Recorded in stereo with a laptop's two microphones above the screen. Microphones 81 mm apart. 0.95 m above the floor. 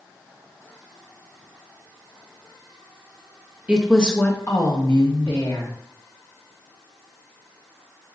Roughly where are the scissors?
No scissors in this recording.